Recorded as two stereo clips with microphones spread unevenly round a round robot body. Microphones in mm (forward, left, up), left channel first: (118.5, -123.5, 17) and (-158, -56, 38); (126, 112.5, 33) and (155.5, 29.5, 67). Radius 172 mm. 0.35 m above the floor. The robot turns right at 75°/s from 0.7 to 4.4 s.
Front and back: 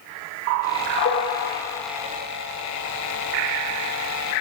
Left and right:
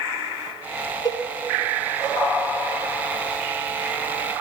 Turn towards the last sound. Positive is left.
turn(degrees=-50)